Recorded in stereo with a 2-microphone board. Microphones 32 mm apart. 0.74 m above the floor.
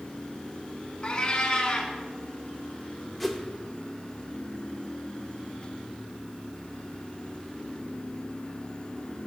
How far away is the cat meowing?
About 0.9 m.